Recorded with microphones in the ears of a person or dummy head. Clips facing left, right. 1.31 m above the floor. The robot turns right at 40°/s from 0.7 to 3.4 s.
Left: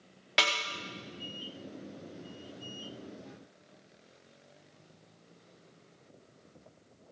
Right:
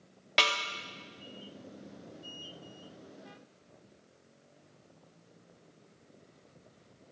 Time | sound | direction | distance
0.4 | a snare drum | centre (ahead or behind) | 0.6 m